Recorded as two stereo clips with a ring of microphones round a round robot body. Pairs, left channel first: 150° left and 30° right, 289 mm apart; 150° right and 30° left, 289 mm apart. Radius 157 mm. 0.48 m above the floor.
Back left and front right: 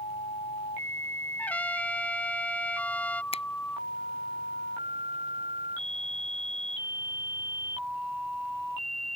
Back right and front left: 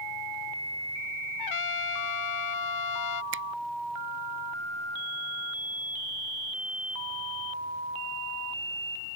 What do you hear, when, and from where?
1.4 s a trumpet: 125° right
3.3 s a finger snap: 80° left